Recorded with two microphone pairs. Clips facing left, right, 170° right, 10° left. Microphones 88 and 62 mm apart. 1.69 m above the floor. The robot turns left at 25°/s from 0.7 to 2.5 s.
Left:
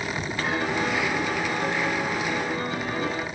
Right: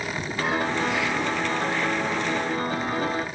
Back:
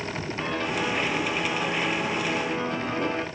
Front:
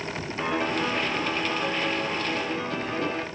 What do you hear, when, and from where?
0.4 s a piano: 65° right, 1.5 m; by 3.2 s 110° right, 1.5 m